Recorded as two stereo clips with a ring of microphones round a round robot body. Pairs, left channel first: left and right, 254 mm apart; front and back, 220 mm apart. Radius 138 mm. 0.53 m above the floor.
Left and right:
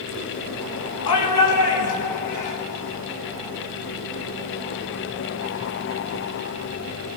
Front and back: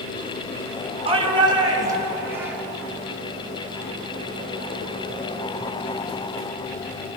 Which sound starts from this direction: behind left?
A shout, at 1.1 s.